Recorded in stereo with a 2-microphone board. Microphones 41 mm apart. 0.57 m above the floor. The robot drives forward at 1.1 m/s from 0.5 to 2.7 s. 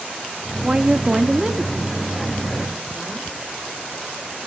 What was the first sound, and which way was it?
A woman speaking, 20° right (ahead or behind).